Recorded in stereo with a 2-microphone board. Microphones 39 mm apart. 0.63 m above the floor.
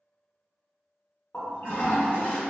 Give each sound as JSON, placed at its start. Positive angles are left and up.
{"t": 1.3, "sound": "a toilet flushing", "side_deg": 75, "distance_m": 1.2}